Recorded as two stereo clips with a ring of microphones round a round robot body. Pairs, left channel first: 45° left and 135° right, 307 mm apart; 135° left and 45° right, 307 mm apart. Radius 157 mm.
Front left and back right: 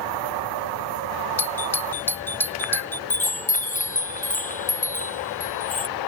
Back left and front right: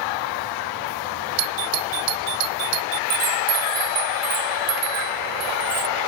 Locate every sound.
1.4 s a doorbell: 40° right
3.1 s a chime: 20° right